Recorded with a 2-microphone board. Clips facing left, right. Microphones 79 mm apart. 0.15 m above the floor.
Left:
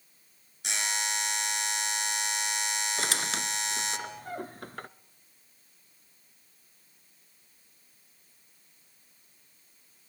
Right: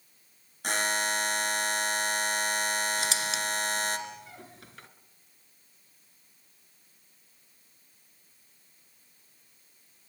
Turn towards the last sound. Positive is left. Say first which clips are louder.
# right 1 dB
turn(degrees=55)  # may be behind; listen again after turning